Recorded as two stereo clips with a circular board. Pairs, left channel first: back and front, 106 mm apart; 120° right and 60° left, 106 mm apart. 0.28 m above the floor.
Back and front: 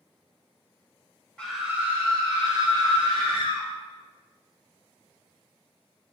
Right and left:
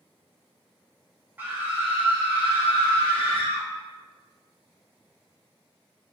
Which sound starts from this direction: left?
A scream, at 1.4 s.